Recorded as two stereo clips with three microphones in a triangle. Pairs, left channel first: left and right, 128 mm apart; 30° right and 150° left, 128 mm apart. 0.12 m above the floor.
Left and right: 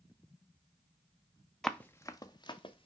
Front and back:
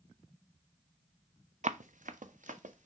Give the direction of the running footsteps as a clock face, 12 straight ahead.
6 o'clock.